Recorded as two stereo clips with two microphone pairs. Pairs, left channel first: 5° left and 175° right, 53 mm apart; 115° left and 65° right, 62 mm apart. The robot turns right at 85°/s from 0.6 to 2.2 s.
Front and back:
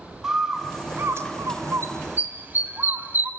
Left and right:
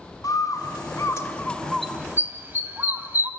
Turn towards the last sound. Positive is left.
turn(degrees=-125)